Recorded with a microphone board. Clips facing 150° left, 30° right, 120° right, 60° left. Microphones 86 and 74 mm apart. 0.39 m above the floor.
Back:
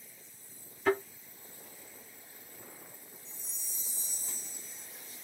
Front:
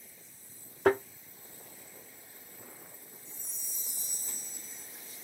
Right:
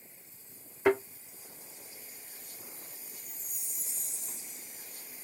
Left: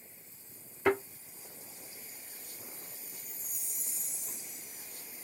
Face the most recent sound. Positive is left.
turn(degrees=-30)